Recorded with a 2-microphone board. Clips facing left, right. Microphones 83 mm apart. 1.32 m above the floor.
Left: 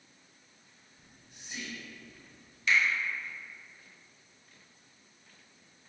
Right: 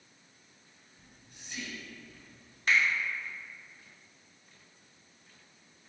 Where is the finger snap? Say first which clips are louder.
Even; 45° right (ahead or behind), 0.9 m.